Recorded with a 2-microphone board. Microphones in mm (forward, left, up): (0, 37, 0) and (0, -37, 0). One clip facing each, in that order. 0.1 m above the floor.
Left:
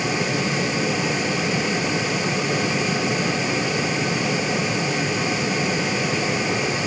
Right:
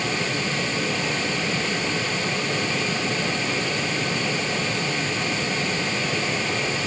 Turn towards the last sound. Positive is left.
No sound to turn to.